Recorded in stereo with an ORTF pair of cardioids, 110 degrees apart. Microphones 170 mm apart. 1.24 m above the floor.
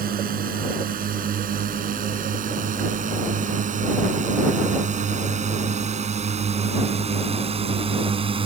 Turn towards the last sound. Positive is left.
turn(degrees=-30)